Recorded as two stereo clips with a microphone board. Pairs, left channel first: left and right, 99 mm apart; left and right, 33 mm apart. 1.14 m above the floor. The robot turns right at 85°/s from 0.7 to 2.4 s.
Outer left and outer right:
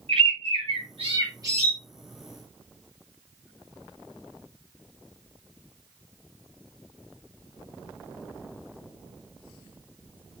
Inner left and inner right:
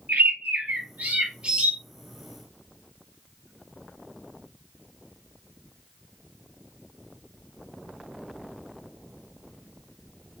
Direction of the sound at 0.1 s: 100° right.